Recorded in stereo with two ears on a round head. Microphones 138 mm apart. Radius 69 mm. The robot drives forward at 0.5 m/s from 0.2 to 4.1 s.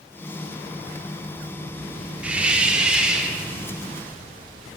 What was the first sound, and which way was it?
A hiss, 10° right (ahead or behind).